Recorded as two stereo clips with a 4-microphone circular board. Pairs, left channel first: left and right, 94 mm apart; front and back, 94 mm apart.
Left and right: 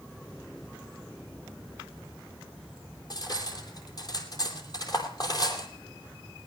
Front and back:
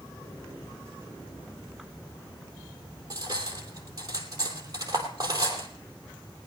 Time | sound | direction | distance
3.1 | cutlery clinking | 135° left | 2.5 m